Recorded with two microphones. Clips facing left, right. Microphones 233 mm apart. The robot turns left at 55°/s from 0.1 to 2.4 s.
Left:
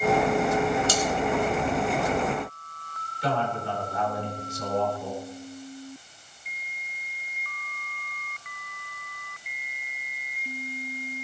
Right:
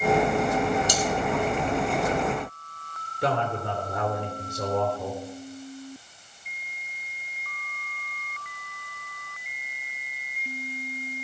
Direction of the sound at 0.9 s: 15° right (ahead or behind).